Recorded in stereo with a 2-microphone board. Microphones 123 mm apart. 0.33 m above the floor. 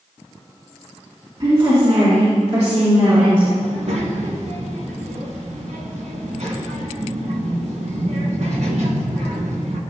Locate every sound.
1.4 s a woman speaking: 45° right (ahead or behind), 3 m; by 3.5 s 70° right (ahead or behind), 4.5 m
3.6 s a child speaking: 70° right (ahead or behind), 2.0 m